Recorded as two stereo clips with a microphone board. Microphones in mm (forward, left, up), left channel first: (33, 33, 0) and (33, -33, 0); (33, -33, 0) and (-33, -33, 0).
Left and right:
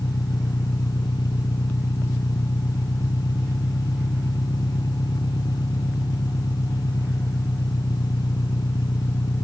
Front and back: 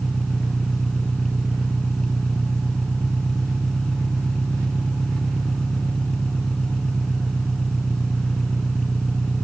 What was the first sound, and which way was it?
An engine running, 80° left.